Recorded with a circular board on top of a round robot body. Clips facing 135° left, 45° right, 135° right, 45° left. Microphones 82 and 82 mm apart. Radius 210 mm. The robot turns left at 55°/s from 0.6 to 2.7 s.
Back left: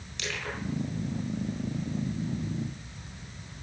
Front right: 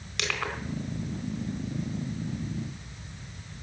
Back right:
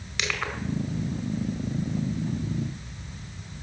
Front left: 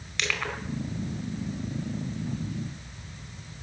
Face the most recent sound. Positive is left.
turn(degrees=-170)